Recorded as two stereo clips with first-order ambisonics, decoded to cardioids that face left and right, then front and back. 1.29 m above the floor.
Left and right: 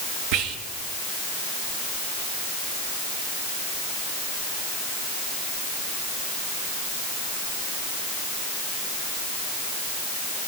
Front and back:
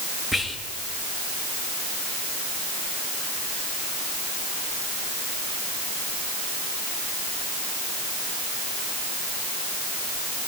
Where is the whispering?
90° right, 1.1 m.